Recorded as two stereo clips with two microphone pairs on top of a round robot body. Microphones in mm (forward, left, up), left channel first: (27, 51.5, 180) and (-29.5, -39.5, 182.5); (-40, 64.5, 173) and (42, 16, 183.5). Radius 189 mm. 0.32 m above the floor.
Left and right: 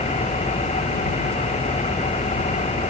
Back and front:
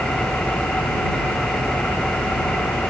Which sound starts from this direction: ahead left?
An engine running, at 0.0 s.